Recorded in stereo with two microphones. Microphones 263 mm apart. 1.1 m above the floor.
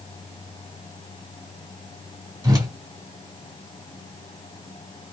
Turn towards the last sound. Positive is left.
turn(degrees=-15)  # may be behind; listen again after turning